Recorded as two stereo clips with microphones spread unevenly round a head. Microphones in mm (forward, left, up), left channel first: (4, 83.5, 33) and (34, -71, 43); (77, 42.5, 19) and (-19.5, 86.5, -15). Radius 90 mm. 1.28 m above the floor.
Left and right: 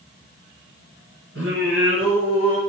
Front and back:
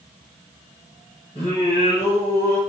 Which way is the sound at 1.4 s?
75° right.